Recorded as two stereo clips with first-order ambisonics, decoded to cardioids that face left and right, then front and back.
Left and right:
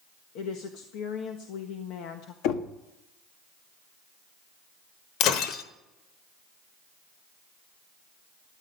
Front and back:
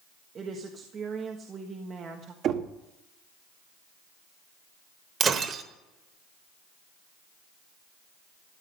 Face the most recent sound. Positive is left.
turn(degrees=120)